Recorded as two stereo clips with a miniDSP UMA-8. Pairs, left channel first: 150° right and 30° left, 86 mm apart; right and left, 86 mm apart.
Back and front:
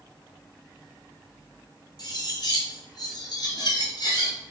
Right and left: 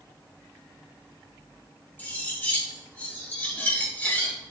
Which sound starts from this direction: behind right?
Cutlery clinking, at 2.0 s.